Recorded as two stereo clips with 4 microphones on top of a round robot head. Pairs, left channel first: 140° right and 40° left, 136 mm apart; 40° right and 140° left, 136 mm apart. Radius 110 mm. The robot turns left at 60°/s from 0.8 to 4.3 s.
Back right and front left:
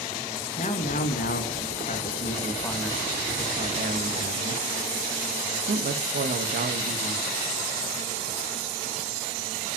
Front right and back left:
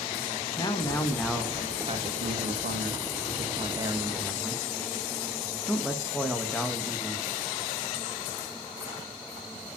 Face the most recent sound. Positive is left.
turn(degrees=45)